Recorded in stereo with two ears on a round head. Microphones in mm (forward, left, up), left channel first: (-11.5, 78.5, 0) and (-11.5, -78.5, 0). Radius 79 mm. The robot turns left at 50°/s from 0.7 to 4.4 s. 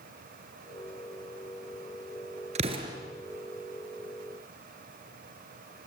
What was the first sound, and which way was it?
An explosion, 40° right (ahead or behind).